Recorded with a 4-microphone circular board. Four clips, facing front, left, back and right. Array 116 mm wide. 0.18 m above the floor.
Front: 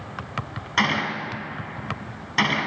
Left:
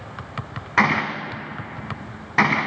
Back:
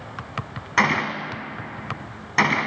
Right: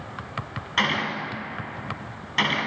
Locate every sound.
0.8 s a gunshot: 110° left, 1.0 m